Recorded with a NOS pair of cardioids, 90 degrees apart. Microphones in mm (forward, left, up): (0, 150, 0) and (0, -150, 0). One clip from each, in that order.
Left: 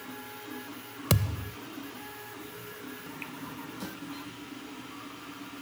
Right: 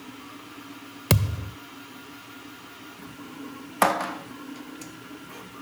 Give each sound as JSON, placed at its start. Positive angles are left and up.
{"t": 1.1, "sound": "a thud", "azimuth_deg": -25}